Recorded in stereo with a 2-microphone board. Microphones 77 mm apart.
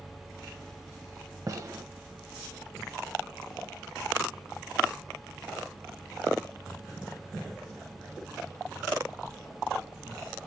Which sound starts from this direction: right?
A gunshot, at 1.5 s.